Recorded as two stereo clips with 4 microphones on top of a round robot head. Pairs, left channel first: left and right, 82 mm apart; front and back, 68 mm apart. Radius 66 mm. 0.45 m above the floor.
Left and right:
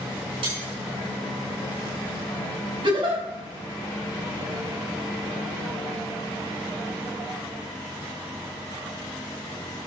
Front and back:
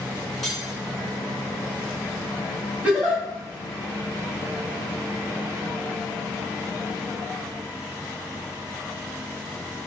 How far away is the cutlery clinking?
About 4 m.